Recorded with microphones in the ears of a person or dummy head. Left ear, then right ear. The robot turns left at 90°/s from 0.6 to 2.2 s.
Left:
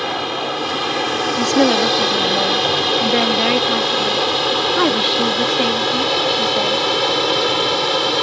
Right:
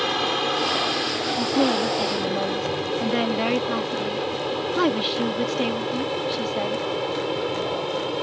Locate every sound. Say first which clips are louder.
0.0 s an aircraft: left 2 dB; 5° right (ahead or behind); by 8.2 s 55° left (ahead or behind)
1.4 s a woman speaking: left 8 dB; 90° left; by 6.9 s 15° left